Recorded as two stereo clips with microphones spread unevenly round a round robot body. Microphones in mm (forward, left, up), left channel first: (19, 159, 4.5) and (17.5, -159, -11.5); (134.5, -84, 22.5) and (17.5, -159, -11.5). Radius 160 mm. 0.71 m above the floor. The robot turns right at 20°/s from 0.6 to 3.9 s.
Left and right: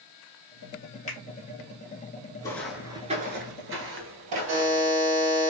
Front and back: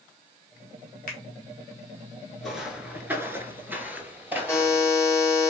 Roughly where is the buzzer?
Ahead right.